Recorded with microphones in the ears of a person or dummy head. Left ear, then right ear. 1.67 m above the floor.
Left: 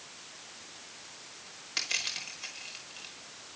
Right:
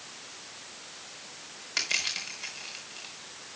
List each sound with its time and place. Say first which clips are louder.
1.8 s crushing: right 3 dB; centre (ahead or behind), 5 m